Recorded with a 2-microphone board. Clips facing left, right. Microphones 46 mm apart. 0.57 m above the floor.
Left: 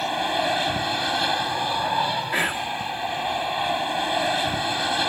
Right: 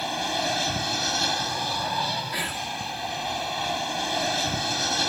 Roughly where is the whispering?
Left.